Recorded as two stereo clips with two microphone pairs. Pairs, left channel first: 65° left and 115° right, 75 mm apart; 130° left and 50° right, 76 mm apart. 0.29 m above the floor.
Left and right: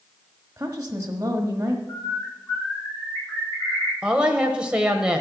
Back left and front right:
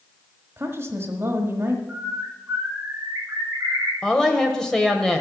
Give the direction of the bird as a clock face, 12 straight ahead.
12 o'clock.